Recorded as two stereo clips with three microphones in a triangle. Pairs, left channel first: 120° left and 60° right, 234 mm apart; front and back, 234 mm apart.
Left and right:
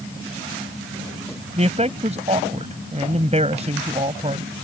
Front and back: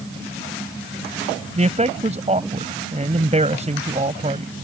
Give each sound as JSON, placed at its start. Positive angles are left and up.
{"t": 1.6, "sound": "a man speaking", "azimuth_deg": -120}